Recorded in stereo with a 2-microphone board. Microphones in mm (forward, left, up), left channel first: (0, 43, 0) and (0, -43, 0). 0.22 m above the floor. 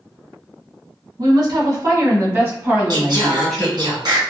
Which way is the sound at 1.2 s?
55° right (ahead or behind).